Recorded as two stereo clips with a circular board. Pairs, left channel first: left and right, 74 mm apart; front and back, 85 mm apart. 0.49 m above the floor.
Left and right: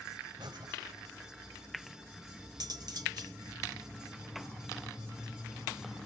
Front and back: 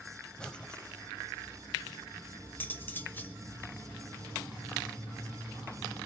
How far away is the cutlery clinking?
About 0.9 m.